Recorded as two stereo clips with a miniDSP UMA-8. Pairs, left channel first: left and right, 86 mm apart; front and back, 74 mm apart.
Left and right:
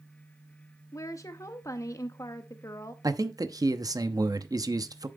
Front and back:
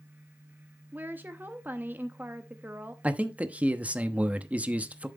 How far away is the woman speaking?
About 0.8 m.